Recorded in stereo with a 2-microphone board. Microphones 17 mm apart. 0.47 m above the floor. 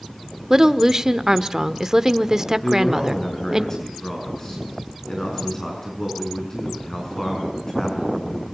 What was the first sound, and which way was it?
A woman speaking, 30° right (ahead or behind).